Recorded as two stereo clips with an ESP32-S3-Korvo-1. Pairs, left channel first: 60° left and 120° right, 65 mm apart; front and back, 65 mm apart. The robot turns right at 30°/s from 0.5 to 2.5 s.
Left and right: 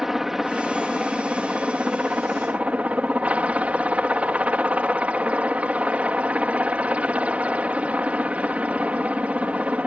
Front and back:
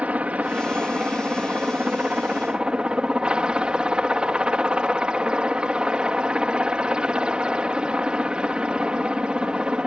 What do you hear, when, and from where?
0.0 s a helicopter: 165° left; by 9.9 s 135° right